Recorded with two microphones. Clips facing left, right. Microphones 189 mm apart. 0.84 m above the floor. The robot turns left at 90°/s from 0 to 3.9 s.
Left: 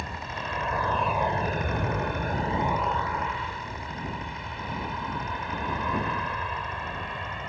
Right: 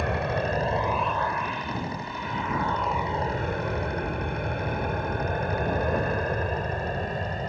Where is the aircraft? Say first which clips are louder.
Right 10 dB; 70° right (ahead or behind); by 7.5 s 40° right (ahead or behind).